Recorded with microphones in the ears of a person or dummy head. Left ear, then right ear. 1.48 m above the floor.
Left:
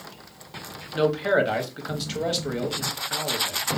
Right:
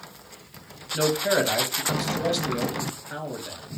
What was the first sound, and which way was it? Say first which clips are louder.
A man speaking: left 1 dB; 10° left (ahead or behind).